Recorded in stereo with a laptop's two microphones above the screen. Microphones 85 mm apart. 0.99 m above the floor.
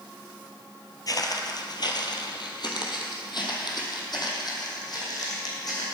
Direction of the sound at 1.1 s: 45° left (ahead or behind).